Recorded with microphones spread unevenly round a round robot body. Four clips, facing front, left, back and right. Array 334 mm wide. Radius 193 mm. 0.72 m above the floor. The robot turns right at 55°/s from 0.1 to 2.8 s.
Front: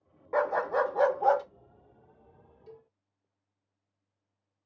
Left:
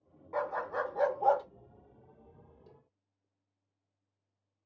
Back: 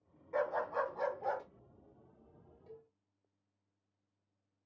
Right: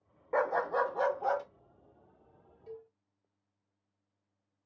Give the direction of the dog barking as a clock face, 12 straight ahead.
1 o'clock.